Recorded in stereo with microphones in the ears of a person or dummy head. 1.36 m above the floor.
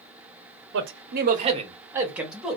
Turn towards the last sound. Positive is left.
turn(degrees=0)  # may be behind; listen again after turning